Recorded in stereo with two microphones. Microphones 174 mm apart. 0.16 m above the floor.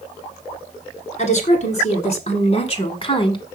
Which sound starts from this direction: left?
A woman speaking, at 1.2 s.